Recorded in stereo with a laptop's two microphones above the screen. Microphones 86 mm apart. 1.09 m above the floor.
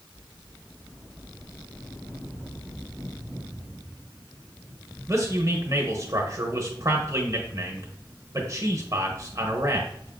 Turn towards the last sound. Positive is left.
turn(degrees=-35)  # may be behind; listen again after turning